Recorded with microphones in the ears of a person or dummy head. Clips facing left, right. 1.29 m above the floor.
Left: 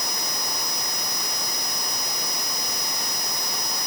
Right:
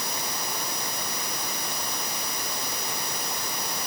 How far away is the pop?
I don't hear a pop.